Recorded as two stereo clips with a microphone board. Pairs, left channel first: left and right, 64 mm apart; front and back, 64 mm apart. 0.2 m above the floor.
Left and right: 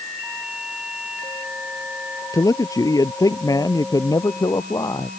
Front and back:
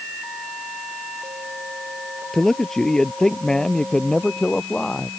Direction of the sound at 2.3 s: 85° left.